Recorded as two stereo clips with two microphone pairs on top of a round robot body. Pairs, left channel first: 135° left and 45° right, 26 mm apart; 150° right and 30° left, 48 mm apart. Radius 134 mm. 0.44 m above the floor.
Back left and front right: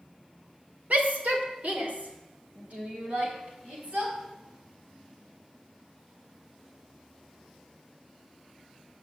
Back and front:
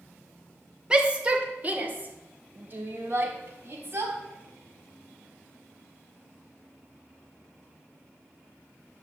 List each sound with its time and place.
0.9 s a shout: 35° right, 1.9 m; by 4.1 s 10° right, 4.5 m